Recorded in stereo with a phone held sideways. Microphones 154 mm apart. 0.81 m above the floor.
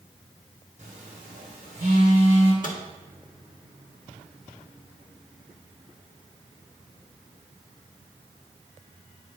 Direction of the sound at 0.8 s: 55° right (ahead or behind).